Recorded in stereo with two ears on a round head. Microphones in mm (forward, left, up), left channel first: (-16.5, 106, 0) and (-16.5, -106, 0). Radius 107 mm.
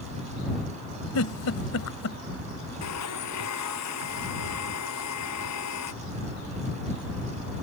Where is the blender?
85° left.